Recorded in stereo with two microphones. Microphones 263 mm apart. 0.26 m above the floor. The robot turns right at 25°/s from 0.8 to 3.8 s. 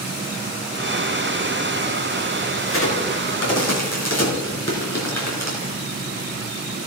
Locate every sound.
2.6 s a crack: 50° left (ahead or behind), 3.5 m; by 5.7 s 70° left (ahead or behind), 3.5 m